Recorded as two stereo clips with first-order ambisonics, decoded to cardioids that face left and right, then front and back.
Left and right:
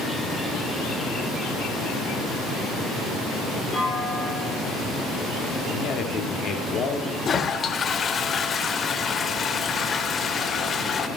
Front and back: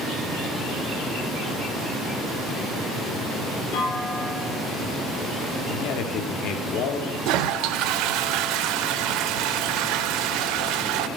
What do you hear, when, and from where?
3.7 s a clunk: 20° left, 3 m
5.7 s a man speaking: 30° left, 1.6 m
7.2 s a toilet flushing: 155° left, 0.6 m